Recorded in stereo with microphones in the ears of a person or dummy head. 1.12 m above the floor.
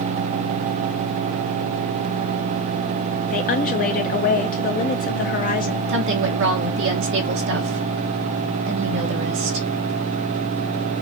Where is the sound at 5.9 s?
60° right (ahead or behind), 1.0 m.